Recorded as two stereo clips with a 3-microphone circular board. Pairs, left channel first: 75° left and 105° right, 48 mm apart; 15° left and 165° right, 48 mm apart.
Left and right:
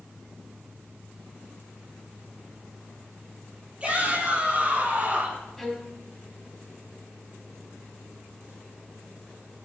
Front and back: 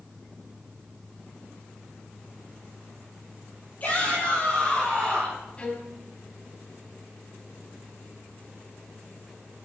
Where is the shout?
40° right, 6.5 m; by 5.5 s 50° right, 7 m.